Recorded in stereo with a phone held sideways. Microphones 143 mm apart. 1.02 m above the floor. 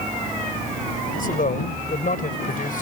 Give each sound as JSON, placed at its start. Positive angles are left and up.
{"t": 1.2, "sound": "a man speaking", "side_deg": 70}